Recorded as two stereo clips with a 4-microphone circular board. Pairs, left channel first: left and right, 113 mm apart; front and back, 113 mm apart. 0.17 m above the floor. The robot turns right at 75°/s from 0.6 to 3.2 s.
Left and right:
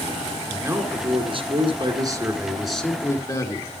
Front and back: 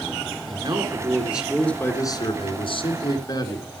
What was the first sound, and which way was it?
A man speaking, 155° right.